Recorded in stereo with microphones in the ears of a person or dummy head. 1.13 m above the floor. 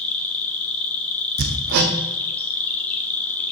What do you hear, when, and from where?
0.0 s an insect: 10° left (ahead or behind), 0.8 m
1.4 s hammering: 50° right (ahead or behind), 0.9 m